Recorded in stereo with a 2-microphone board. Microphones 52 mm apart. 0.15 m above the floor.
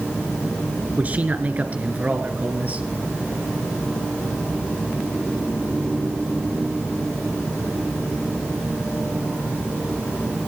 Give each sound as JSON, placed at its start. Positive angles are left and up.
{"t": 1.0, "sound": "a man speaking", "side_deg": -35, "distance_m": 2.5}